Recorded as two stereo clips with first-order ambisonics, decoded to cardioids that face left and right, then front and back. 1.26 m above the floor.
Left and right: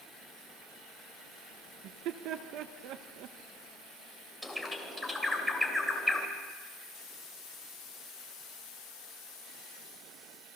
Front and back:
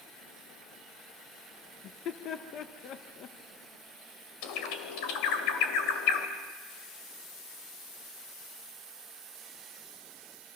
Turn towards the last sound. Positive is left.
turn(degrees=0)